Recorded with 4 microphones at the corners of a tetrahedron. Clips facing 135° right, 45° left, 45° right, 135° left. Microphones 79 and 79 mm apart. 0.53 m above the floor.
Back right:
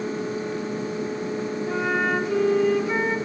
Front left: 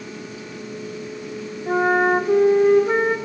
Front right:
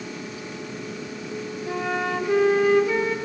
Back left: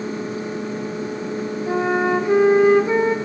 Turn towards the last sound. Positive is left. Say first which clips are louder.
# front left 8 dB, back left 7 dB
turn(degrees=80)